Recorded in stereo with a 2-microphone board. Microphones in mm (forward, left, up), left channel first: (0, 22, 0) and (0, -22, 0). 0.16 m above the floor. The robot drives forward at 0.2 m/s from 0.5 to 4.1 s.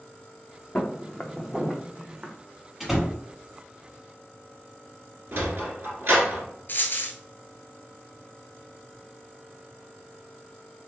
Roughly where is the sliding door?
Right.